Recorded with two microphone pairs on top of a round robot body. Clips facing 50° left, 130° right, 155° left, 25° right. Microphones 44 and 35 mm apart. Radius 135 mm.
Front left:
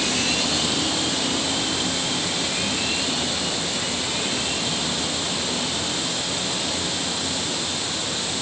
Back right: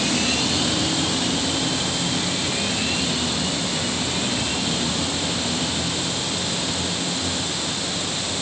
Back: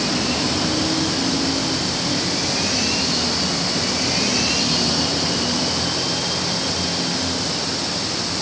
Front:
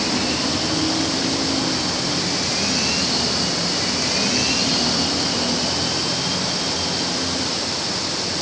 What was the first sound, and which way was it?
Only background noise.